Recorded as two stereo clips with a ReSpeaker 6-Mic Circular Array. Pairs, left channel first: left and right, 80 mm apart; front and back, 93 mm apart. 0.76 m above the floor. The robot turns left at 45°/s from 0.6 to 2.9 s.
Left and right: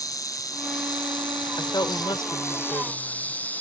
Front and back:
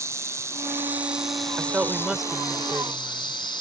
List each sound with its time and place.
0.0 s an insect: 125° left; by 3.6 s 20° left
1.6 s a woman speaking: 120° left; by 3.4 s 60° left